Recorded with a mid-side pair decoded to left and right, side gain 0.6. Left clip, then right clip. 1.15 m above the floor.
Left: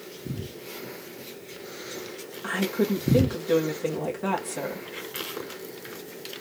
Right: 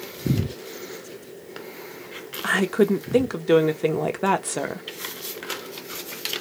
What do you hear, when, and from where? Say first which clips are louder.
2.4 s a woman speaking: right 6 dB; 45° right, 1.0 m